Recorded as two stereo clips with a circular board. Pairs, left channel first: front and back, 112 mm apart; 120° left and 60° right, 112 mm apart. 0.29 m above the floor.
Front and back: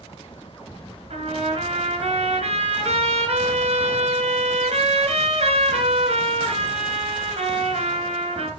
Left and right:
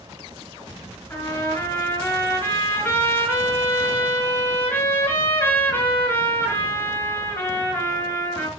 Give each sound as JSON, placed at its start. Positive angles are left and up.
{"t": 1.1, "sound": "a trumpet", "azimuth_deg": -175, "distance_m": 4.5}